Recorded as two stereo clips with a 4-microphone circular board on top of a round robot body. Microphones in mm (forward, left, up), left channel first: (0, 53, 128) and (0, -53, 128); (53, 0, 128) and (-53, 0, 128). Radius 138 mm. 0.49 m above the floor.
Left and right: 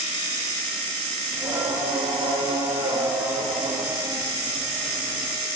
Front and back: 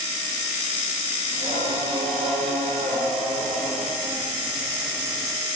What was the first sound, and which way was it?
Singing, 165° right.